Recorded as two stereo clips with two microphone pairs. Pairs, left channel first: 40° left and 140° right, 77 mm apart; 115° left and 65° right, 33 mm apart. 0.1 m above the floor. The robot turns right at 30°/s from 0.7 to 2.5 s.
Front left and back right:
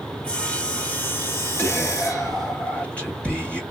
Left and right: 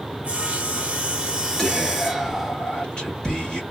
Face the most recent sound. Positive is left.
turn(degrees=90)